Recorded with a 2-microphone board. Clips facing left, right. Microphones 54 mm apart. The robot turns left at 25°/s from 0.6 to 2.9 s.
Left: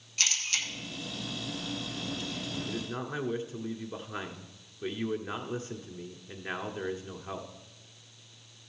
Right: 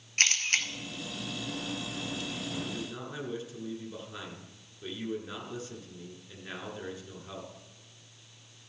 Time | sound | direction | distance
0.2 | a camera shutter | 50° right (ahead or behind) | 1.1 m
2.7 | a man speaking | 35° left (ahead or behind) | 1.3 m